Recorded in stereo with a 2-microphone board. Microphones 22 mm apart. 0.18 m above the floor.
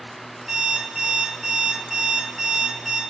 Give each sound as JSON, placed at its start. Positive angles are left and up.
{"t": 0.5, "sound": "an alarm clock", "side_deg": -10, "distance_m": 0.7}